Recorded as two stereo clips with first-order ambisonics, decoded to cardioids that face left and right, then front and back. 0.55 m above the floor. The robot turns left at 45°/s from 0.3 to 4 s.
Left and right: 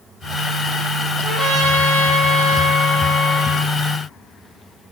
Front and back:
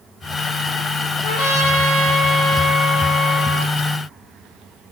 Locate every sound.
1.2 s a trumpet: 10° right, 10 m; by 3.7 s 120° right, 10 m